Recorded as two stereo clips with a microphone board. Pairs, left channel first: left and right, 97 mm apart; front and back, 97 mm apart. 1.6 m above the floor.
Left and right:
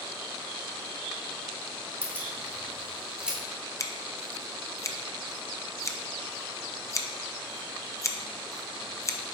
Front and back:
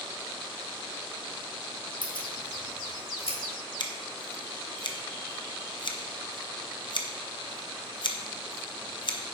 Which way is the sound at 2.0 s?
25° right.